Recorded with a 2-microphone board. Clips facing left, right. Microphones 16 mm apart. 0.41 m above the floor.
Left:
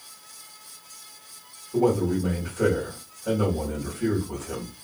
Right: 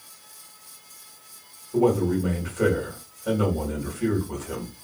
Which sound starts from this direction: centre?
A man speaking, at 1.7 s.